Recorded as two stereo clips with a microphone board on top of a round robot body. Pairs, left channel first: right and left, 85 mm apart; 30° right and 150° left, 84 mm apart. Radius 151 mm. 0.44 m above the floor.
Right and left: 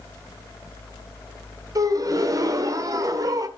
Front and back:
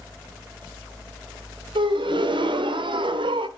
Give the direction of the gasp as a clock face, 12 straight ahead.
7 o'clock.